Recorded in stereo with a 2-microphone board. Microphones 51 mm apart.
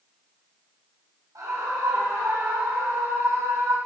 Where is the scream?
90° right, 7 m; by 3.8 s 80° right, 9 m.